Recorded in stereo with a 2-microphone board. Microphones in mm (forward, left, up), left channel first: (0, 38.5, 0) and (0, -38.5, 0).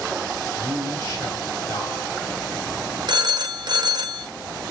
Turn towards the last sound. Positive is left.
turn(degrees=-60)  # may be behind; listen again after turning